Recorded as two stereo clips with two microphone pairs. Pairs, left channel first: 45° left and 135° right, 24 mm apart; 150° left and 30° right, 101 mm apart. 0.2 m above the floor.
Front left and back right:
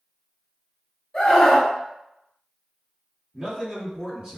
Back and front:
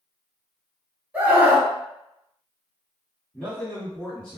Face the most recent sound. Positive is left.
turn(degrees=-140)